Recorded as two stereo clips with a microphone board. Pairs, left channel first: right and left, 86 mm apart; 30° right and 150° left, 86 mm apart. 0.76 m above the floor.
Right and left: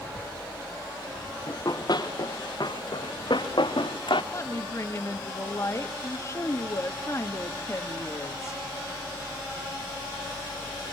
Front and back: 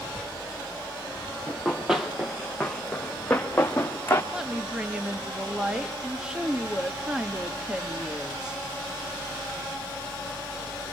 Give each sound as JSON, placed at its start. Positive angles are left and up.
{"t": 1.5, "sound": "running footsteps", "azimuth_deg": -130, "distance_m": 3.5}
{"t": 4.3, "sound": "a woman speaking", "azimuth_deg": -130, "distance_m": 1.3}